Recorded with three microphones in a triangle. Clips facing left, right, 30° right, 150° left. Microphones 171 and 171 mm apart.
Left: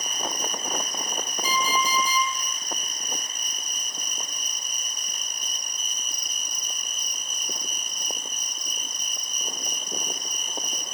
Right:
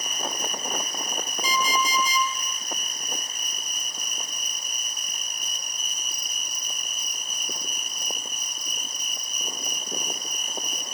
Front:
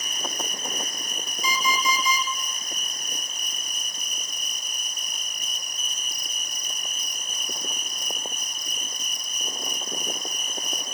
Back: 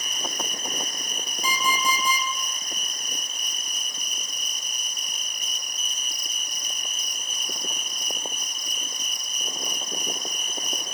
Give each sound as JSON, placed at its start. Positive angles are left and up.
{"t": 0.0, "sound": "an insect", "azimuth_deg": -10, "distance_m": 2.0}
{"t": 1.4, "sound": "an alarm clock", "azimuth_deg": 115, "distance_m": 3.5}